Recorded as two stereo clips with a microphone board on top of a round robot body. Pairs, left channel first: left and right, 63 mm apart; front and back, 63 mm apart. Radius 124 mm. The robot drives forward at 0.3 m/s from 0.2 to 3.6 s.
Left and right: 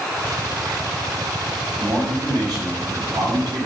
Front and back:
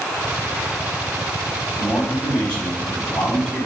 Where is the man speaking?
70° right, 4 m; by 3.7 s 75° right, 4 m.